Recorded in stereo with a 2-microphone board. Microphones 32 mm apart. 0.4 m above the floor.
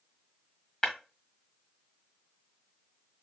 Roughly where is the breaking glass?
Left.